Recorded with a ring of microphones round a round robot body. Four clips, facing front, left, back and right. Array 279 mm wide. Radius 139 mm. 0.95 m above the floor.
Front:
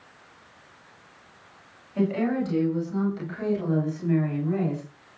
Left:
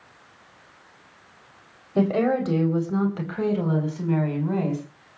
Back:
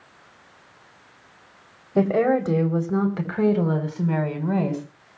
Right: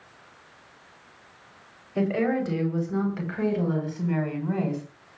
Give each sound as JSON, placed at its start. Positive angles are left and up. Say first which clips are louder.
{"t": 1.9, "sound": "a woman speaking", "louder": "left 3 dB, back 6 dB", "azimuth_deg": 160, "distance_m": 4.5}